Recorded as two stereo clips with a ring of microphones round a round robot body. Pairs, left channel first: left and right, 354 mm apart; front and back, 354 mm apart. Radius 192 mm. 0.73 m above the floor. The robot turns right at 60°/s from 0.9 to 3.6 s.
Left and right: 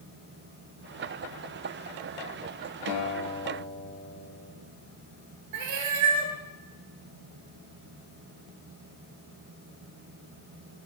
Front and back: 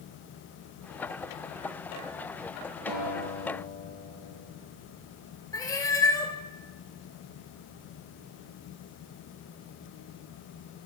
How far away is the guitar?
About 5 m.